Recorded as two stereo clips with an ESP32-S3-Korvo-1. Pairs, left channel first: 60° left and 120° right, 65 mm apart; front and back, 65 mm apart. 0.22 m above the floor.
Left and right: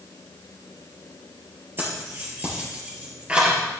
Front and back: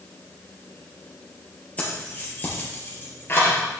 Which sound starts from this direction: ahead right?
Keys jangling, at 1.8 s.